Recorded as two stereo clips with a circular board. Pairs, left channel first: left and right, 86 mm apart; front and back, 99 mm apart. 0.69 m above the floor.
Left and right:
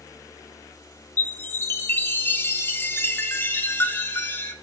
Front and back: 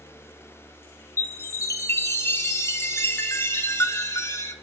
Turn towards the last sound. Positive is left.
turn(degrees=45)